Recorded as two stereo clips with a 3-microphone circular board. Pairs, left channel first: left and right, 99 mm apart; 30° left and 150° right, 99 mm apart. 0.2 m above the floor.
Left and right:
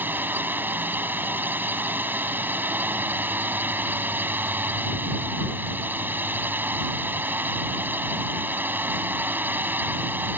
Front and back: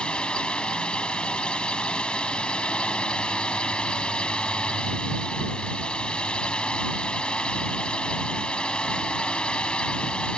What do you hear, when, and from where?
0.0 s a drone: 40° right